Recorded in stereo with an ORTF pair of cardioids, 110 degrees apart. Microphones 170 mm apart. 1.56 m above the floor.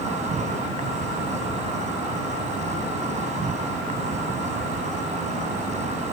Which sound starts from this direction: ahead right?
An insect, at 0.0 s.